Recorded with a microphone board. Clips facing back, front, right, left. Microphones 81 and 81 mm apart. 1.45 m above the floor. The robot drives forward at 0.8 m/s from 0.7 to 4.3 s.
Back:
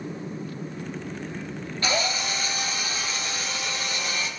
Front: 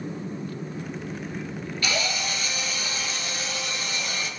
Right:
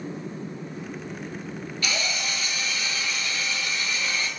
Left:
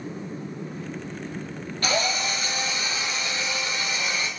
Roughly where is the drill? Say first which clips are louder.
Back 2 dB, left 6 dB; behind left.